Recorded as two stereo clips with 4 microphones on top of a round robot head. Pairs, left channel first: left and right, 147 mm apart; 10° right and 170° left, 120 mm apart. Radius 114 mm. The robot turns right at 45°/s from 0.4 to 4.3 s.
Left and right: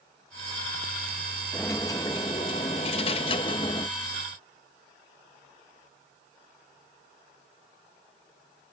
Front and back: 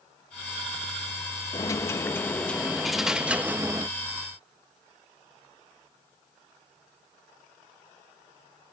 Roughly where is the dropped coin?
Ahead.